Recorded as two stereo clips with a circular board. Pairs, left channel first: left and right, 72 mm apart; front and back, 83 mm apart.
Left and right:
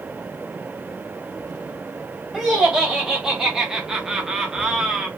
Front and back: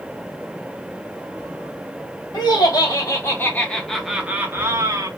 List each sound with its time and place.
2.3 s laughter: 5° right, 1.0 m; by 5.1 s 170° right, 0.8 m